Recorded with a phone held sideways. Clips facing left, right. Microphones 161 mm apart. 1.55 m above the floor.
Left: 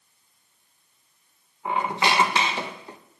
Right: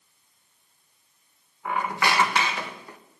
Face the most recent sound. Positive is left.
turn(degrees=25)  # may be behind; listen again after turning